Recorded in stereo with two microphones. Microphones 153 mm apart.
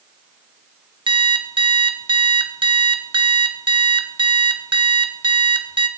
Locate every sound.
1.1 s an alarm clock: 30° right (ahead or behind), 1.0 m